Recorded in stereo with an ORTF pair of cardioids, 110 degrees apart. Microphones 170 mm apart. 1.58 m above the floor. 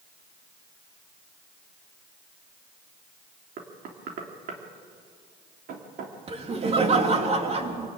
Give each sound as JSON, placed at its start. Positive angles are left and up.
{"t": 3.6, "sound": "knocking", "azimuth_deg": -60, "distance_m": 3.5}
{"t": 6.3, "sound": "laughter", "azimuth_deg": -35, "distance_m": 3.5}